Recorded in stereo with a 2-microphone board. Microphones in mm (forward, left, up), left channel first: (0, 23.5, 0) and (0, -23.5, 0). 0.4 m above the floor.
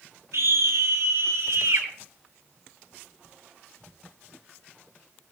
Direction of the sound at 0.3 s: 80° right.